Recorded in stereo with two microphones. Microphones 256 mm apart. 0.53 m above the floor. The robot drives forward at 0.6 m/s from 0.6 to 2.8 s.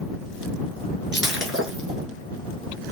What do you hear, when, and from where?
1.1 s breaking glass: 45° right (ahead or behind), 1.4 m; by 2.1 s 65° right (ahead or behind), 1.1 m